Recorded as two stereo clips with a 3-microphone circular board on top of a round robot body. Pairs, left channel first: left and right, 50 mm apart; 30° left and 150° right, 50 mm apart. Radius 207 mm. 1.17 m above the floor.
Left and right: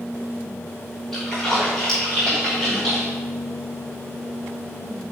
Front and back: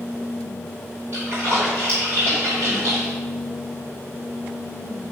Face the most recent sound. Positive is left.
turn(degrees=175)